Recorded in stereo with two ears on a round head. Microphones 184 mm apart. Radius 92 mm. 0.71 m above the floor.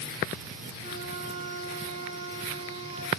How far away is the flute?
About 4 m.